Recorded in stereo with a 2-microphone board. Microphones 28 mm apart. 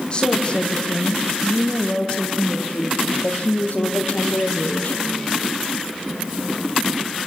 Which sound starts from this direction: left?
A woman speaking, at 0.1 s.